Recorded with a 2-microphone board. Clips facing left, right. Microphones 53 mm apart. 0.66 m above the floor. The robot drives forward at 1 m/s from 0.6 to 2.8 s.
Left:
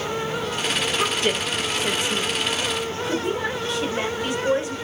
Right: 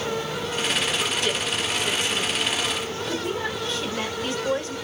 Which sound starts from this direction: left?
A woman speaking, at 1.0 s.